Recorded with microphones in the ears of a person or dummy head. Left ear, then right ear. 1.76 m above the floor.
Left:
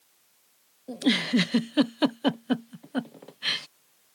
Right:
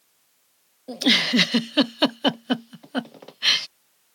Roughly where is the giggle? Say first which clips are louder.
Right 6 dB; right.